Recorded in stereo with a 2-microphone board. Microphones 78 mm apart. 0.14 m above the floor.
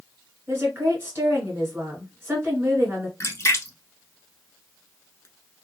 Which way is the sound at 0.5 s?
30° right (ahead or behind).